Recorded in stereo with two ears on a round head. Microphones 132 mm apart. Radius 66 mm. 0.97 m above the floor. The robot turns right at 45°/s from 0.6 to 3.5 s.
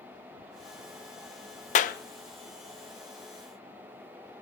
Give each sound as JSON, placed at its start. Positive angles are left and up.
{"t": 1.8, "sound": "a clap", "side_deg": 50, "distance_m": 0.7}